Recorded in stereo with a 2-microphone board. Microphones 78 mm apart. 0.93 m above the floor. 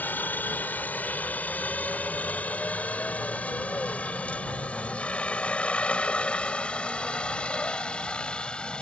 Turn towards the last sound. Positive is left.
turn(degrees=10)  # may be behind; listen again after turning